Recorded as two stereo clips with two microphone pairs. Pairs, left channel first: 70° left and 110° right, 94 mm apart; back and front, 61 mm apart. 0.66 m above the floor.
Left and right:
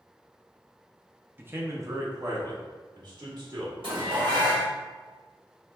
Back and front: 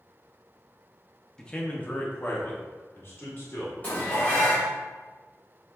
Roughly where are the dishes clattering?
Behind right.